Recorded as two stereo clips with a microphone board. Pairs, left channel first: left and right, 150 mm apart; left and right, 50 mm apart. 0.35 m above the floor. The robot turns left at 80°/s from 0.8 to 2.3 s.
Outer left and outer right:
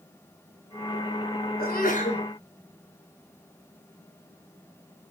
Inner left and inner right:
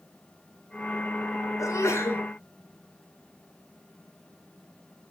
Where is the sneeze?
90° left, 3.5 m; by 2.2 s 40° left, 3.5 m.